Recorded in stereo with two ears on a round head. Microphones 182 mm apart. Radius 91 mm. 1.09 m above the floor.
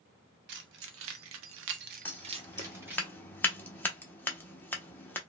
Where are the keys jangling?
60° right (ahead or behind), 1.0 m; by 3.0 s 5° right (ahead or behind), 1.0 m.